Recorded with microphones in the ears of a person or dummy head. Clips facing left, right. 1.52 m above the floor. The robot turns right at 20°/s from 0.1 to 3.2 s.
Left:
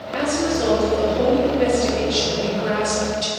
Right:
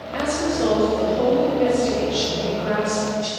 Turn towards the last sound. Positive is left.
turn(degrees=55)